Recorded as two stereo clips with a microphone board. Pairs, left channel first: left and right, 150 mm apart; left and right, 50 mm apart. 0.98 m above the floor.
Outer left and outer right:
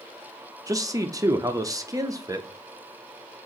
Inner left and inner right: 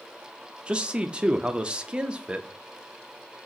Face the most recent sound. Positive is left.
turn(degrees=-25)  # may be behind; listen again after turning